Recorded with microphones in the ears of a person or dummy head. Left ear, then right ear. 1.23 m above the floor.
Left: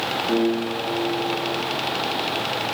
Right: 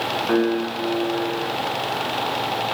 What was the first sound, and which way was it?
A piano, 60° right (ahead or behind).